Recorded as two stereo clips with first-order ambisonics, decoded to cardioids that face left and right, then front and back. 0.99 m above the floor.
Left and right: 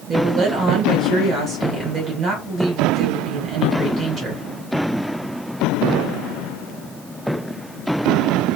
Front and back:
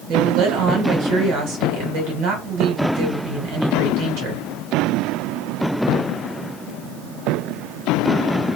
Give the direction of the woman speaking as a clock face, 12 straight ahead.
5 o'clock.